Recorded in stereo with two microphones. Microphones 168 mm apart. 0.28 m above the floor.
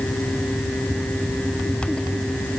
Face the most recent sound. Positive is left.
No sound to turn to.